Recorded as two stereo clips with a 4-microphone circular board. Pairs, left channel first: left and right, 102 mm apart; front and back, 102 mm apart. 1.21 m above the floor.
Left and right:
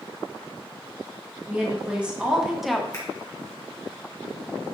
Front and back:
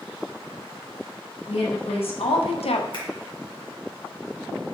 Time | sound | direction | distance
1.5 | a woman speaking | 15° right | 1.2 m
2.9 | a finger snap | 30° left | 1.4 m